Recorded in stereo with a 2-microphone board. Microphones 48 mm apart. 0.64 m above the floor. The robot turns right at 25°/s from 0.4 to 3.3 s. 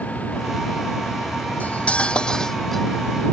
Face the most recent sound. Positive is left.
turn(degrees=-170)